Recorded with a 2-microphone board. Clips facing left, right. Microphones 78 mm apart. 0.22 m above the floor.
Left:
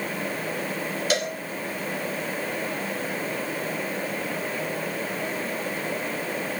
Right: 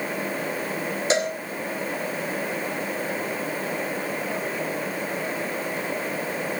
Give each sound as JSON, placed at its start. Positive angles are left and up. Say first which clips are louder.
{"t": 1.1, "sound": "a cowbell", "louder": "right 3 dB", "side_deg": -25, "distance_m": 2.0}